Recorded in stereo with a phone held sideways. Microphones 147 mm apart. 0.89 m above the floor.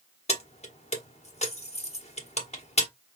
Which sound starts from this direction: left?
Keys jangling, at 0.3 s.